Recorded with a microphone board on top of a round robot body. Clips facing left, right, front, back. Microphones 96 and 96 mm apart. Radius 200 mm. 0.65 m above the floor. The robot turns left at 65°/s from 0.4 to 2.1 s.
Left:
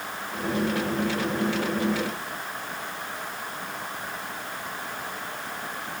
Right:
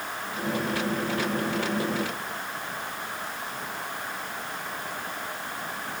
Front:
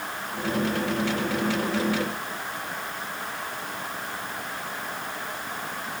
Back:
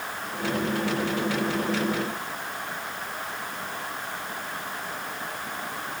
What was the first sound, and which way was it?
Only background noise.